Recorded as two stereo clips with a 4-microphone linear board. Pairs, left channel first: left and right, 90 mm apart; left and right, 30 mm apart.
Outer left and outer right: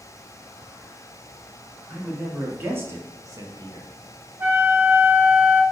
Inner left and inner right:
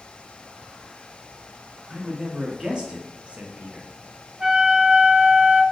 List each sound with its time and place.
1.9 s a man speaking: 15° right (ahead or behind), 1.7 m; by 3.9 s 65° right (ahead or behind), 0.7 m
4.4 s a flute: 25° right (ahead or behind), 0.6 m